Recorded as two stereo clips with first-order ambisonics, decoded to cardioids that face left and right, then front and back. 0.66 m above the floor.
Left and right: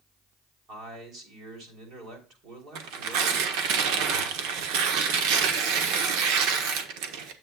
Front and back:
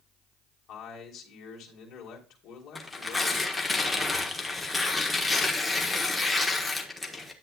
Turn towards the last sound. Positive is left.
turn(degrees=-80)